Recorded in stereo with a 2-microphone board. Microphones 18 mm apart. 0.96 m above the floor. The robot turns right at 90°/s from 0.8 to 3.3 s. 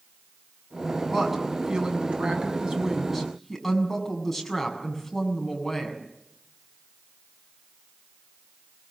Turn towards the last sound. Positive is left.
turn(degrees=10)